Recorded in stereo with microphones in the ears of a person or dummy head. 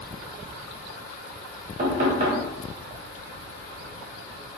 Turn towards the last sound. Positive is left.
turn(degrees=-40)  # may be behind; listen again after turning